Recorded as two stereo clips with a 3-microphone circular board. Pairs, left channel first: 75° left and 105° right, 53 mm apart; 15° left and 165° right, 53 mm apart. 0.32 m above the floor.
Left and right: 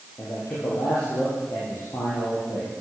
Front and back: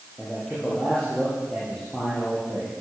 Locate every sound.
0.2 s a man speaking: 95° left, 8 m